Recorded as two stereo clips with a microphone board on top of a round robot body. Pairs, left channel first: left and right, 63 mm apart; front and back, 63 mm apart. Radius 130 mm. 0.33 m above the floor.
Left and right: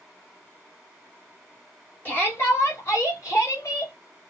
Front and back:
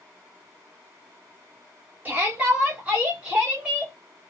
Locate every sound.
2.0 s a shout: 130° left, 1.7 m; by 3.9 s 105° left, 3 m